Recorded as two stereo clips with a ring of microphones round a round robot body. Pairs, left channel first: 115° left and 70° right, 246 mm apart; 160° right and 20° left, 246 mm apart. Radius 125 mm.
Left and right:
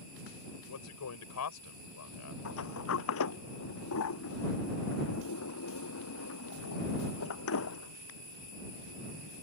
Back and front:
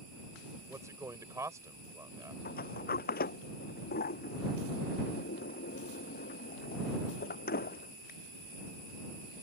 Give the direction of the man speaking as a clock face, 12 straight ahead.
9 o'clock.